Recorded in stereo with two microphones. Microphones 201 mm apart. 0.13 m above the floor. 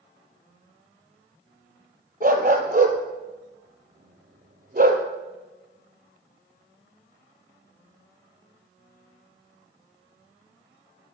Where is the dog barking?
45° right (ahead or behind), 0.9 m.